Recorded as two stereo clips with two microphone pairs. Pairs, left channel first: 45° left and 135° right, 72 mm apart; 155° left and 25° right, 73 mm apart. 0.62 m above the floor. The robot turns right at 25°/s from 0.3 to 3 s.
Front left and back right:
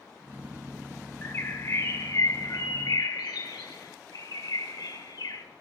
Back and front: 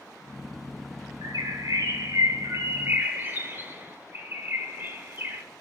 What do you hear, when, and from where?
1.2 s a bird: 15° right, 1.7 m; by 5.4 s 30° left, 1.7 m